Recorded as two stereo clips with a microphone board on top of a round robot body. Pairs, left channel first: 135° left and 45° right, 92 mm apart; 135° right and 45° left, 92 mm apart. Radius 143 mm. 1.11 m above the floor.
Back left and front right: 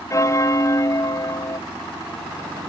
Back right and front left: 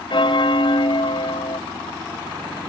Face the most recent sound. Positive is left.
turn(degrees=-170)